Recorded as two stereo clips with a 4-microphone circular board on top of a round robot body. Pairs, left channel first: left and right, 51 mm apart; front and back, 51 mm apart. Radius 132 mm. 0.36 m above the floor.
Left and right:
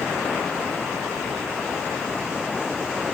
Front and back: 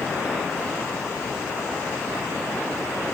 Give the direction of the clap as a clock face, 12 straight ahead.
No clap in this recording.